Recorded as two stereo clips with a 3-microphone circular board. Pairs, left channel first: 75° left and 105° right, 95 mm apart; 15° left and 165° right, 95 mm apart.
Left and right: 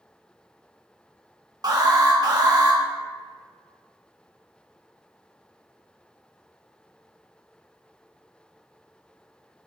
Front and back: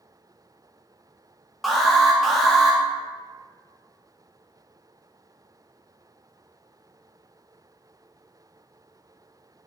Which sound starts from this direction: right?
An alarm, at 1.6 s.